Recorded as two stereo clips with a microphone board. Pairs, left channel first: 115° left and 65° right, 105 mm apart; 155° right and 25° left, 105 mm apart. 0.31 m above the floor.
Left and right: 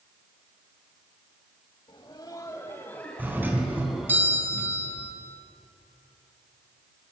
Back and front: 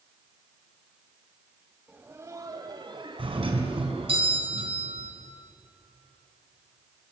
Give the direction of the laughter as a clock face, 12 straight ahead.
9 o'clock.